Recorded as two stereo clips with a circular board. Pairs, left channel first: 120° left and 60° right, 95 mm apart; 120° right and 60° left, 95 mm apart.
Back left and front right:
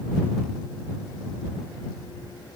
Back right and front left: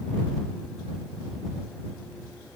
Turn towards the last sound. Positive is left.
No sound to turn to.